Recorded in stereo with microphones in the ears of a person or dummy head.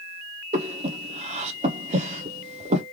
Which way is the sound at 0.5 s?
35° right (ahead or behind).